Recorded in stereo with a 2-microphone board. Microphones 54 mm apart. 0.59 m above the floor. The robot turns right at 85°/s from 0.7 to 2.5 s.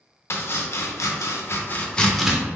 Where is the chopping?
55° left (ahead or behind), 0.5 m; by 2.4 s 20° right (ahead or behind), 0.5 m.